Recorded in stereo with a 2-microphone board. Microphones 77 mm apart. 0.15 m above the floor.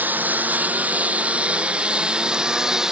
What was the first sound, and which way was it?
A lawn mower, 25° right (ahead or behind).